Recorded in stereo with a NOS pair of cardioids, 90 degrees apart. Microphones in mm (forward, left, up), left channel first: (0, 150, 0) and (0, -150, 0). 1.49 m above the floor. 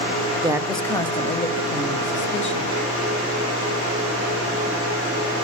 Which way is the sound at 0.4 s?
15° right.